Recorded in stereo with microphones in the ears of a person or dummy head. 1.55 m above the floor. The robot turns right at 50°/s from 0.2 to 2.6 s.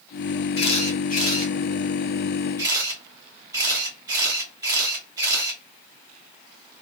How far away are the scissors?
I don't hear scissors.